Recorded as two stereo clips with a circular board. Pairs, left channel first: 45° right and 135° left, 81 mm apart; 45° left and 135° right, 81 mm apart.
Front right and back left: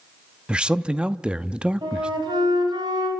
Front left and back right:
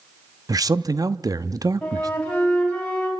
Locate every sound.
0.5 s a man speaking: 150° right, 0.7 m
1.8 s a flute: 125° left, 4.5 m